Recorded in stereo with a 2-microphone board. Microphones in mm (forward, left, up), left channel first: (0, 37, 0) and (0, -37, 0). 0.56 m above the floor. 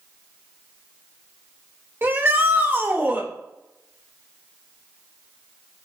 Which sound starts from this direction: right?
A shout, at 2.0 s.